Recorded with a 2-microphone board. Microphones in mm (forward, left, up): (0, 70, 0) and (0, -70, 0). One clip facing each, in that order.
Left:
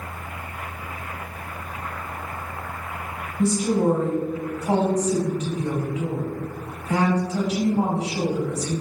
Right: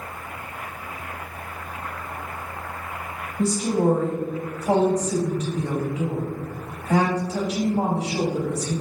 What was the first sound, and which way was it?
A woman speaking, 35° right (ahead or behind).